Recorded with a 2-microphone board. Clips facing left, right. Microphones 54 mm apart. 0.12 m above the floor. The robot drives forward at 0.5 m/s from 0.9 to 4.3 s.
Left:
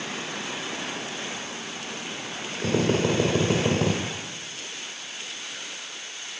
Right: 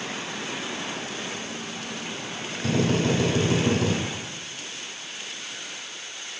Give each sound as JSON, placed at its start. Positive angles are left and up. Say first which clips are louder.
{"t": 2.6, "sound": "a drill", "louder": "even", "side_deg": 45, "distance_m": 2.5}